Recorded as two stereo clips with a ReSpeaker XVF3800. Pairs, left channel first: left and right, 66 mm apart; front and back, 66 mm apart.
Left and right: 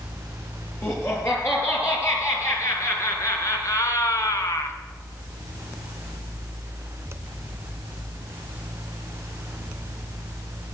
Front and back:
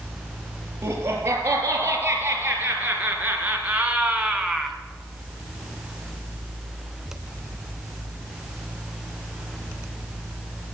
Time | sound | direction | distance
0.8 | laughter | 130° left | 5 m